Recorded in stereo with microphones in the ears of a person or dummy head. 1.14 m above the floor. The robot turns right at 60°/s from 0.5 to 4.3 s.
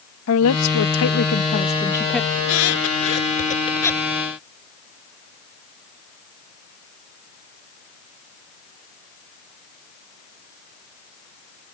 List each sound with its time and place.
0.3 s a woman speaking: 80° left; by 2.3 s 175° right
2.4 s a squeak: 75° left (ahead or behind); by 4.1 s centre (ahead or behind)